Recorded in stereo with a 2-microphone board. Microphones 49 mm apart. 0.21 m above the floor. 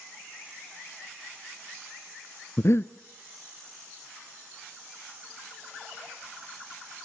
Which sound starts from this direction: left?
Breathing, at 2.6 s.